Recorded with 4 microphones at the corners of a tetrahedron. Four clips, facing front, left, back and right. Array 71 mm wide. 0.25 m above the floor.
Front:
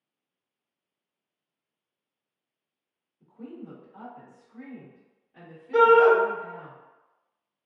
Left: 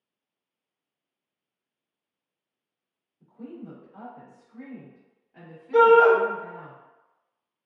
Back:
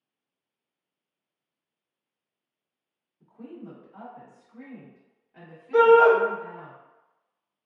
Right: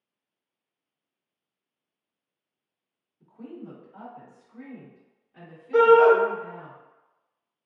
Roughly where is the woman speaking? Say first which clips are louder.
Even, even; behind right.